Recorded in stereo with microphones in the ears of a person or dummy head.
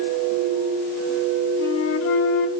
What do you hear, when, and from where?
1.6 s a flute: 70° left (ahead or behind), 2.5 m